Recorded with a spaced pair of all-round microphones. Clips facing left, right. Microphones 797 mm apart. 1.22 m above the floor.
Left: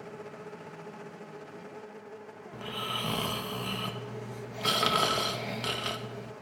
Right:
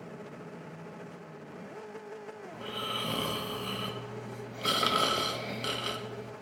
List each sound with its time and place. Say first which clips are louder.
2.5 s snoring: left 1 dB; 40° left (ahead or behind), 0.5 m